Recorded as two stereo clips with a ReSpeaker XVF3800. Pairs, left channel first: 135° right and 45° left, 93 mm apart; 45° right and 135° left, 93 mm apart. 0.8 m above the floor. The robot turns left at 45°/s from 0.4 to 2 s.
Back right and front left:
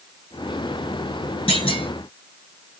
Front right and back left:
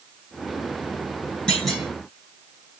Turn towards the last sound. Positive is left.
turn(degrees=-150)